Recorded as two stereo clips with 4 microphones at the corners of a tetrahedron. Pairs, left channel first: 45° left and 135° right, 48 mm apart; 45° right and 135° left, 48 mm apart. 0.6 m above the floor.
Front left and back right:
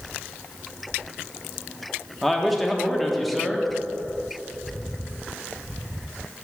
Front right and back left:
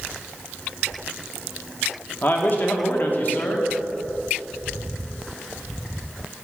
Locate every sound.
2.2 s a man speaking: 45° right, 0.8 m